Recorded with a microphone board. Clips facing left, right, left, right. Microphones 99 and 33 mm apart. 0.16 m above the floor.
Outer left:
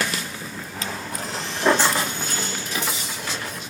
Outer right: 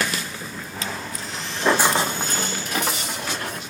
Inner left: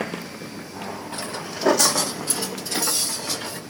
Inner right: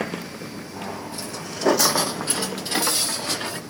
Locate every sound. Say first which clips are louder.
1.1 s footsteps: outer left 2 dB, inner left 2 dB; 50° left (ahead or behind), 0.7 m; by 3.6 s 70° right (ahead or behind), 2 m